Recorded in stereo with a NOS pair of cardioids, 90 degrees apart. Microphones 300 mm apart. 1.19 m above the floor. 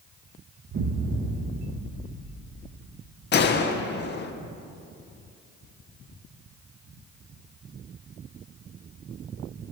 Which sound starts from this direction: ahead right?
An explosion, at 0.7 s.